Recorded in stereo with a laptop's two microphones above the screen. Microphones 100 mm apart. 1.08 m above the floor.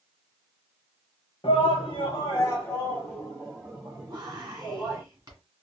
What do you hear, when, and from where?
1.4 s a shout: 65° left (ahead or behind), 0.9 m; by 5.0 s 25° right (ahead or behind), 1.5 m
4.1 s whispering: 35° right (ahead or behind), 1.9 m